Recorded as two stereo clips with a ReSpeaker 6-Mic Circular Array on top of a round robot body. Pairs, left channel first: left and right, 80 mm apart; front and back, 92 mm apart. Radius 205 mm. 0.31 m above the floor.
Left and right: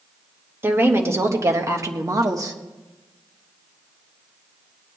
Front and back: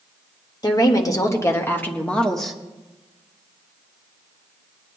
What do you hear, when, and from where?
0.6 s a woman speaking: 35° right, 1.8 m; by 2.6 s 90° right, 1.4 m